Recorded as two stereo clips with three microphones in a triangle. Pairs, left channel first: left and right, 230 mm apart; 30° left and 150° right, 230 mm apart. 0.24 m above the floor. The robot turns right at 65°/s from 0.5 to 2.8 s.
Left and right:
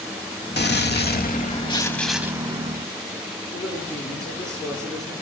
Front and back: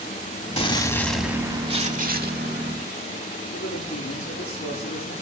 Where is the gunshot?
80° left, 0.7 m; by 2.8 s 135° right, 0.7 m.